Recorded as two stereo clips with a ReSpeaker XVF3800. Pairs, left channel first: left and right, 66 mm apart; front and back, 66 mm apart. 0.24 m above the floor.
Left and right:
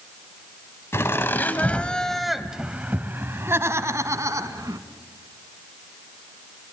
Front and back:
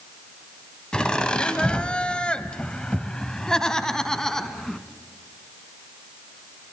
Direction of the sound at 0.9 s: 70° left.